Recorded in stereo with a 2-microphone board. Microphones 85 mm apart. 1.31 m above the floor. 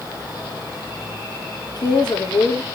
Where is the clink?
I don't hear a clink.